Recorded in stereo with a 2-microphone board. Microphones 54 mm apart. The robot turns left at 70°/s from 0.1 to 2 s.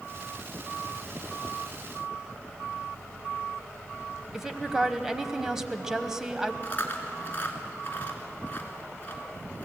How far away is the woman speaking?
About 1.1 m.